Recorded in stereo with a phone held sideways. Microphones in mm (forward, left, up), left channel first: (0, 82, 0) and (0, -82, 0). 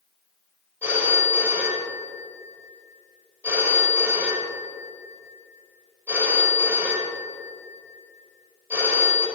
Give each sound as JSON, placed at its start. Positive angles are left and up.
{"t": 0.8, "sound": "a phone ringing", "side_deg": -15, "distance_m": 2.5}